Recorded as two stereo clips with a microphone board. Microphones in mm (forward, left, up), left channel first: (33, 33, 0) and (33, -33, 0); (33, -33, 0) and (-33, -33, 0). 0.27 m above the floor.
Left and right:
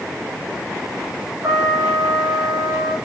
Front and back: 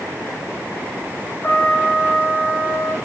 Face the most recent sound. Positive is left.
turn(degrees=-55)